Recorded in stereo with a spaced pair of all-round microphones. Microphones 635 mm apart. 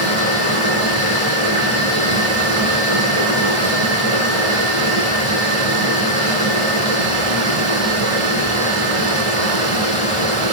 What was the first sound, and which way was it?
Running water, 50° right (ahead or behind).